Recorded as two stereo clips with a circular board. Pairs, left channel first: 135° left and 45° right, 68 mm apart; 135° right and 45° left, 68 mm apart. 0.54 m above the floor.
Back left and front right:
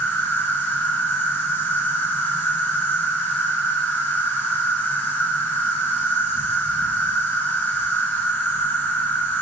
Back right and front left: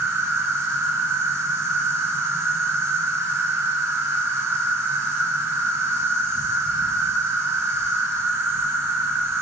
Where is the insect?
85° left, 0.7 m.